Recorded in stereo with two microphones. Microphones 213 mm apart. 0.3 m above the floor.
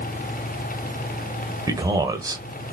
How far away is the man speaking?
About 0.9 m.